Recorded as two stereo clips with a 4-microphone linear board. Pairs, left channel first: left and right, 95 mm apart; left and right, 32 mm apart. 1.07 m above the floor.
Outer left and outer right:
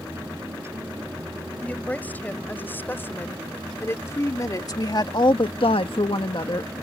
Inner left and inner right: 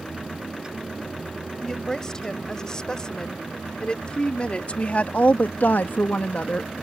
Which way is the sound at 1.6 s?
20° left (ahead or behind).